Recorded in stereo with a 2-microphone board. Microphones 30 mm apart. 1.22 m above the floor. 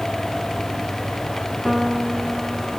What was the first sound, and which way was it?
A piano, 10° left (ahead or behind).